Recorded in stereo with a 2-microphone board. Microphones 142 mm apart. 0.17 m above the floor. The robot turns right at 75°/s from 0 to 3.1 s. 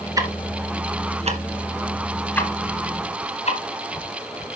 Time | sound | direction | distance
0.2 | ticking | 25° right (ahead or behind) | 1.5 m